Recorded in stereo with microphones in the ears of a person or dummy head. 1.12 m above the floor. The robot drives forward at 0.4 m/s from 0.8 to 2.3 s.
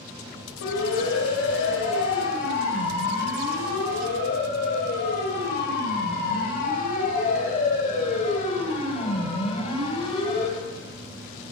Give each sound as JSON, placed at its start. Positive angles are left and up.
{"t": 0.6, "sound": "a siren", "side_deg": 85, "distance_m": 7.5}